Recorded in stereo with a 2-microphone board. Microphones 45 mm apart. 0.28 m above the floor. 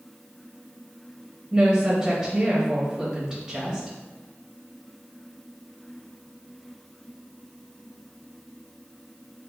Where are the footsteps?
No footsteps in this recording.